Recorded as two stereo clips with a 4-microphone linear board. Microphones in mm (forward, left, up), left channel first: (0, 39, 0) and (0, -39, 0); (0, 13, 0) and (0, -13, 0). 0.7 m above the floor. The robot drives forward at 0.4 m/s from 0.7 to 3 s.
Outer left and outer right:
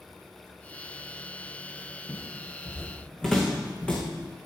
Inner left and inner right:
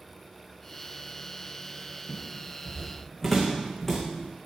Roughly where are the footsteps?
Centre.